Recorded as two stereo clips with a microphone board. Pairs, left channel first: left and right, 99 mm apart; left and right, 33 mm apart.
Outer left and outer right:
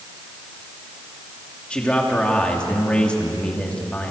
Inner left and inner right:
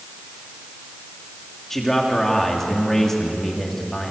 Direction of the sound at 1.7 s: 10° left (ahead or behind).